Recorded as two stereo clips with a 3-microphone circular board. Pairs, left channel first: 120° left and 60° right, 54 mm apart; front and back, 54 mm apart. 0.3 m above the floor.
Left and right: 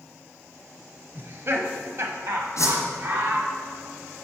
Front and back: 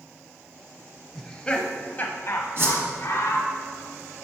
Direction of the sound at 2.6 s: 135° left.